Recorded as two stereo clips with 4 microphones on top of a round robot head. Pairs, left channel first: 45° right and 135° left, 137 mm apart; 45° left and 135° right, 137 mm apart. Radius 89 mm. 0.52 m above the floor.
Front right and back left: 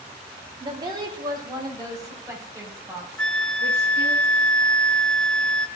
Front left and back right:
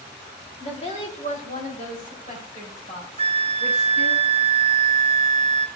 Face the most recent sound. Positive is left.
turn(degrees=-125)